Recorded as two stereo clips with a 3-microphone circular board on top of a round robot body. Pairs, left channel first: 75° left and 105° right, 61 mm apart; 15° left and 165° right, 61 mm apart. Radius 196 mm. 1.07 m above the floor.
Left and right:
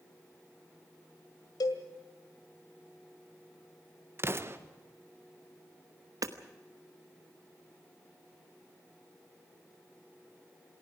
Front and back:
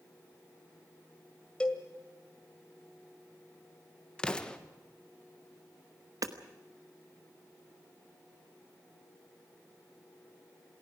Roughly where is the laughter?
I don't hear laughter.